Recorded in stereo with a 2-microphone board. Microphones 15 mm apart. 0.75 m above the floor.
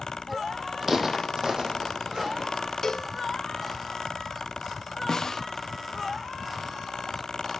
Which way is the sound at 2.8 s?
40° left (ahead or behind).